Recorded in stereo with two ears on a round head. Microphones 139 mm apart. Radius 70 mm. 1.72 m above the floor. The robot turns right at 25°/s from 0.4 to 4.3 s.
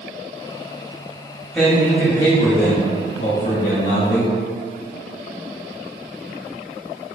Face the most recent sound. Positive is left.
turn(degrees=65)